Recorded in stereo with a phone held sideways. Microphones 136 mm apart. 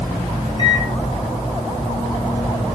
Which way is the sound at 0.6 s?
35° left (ahead or behind).